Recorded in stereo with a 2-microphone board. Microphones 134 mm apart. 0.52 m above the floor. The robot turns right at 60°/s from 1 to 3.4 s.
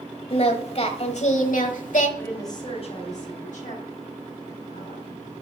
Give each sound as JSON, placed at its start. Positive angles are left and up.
{"t": 0.3, "sound": "singing", "azimuth_deg": 50, "distance_m": 1.2}
{"t": 2.2, "sound": "a woman speaking", "azimuth_deg": 10, "distance_m": 4.0}